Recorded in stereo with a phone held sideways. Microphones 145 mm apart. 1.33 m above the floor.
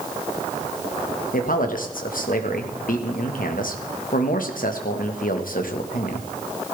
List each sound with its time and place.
1.3 s a man speaking: 75° left (ahead or behind), 1.6 m